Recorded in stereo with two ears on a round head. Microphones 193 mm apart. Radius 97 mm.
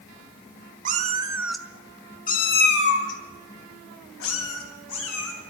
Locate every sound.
0.8 s a cat meowing: 40° right (ahead or behind), 1.0 m; by 5.3 s 75° left (ahead or behind), 4 m